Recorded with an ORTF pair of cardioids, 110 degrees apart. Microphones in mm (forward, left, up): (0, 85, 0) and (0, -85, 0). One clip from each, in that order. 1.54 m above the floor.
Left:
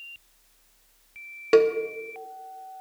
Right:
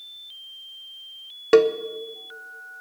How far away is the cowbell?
About 0.9 m.